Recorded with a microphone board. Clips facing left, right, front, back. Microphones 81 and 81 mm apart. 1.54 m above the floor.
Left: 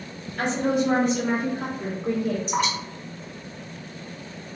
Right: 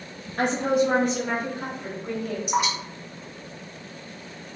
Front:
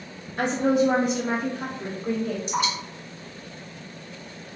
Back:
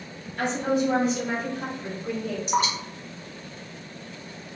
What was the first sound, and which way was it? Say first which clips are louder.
A woman speaking: right 1 dB, front 3 dB; 50° right.